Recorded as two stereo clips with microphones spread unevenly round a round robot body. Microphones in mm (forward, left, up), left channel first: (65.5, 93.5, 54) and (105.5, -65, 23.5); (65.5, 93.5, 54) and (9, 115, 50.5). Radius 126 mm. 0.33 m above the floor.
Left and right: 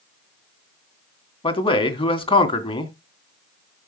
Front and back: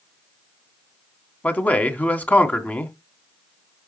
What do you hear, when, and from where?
1.4 s a man speaking: 45° left, 3 m